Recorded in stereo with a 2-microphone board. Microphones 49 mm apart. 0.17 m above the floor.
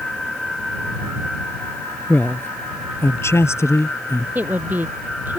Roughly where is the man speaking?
Left.